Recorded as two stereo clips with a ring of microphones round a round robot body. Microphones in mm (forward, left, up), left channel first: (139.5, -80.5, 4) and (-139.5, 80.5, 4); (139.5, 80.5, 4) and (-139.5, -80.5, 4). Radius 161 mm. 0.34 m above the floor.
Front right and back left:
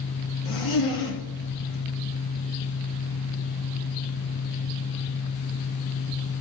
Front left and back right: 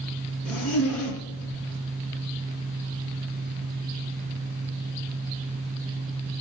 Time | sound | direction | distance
0.5 | a zipper | 55° right | 3 m